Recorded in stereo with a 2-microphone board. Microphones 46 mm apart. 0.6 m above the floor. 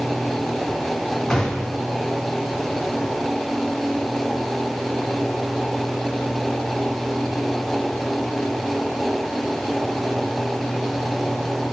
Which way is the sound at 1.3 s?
15° left (ahead or behind).